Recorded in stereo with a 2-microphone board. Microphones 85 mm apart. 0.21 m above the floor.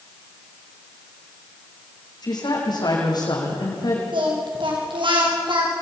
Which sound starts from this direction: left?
A woman speaking, at 2.2 s.